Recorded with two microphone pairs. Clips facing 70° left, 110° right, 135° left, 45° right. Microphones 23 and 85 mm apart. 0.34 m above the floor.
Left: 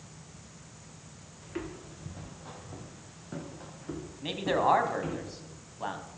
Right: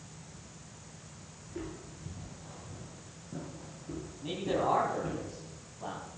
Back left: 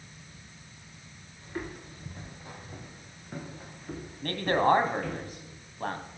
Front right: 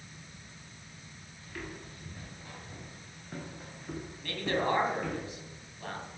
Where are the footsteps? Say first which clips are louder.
Left 3 dB, back left 5 dB; 80° left, 4 m; by 5.2 s 40° left, 5.5 m.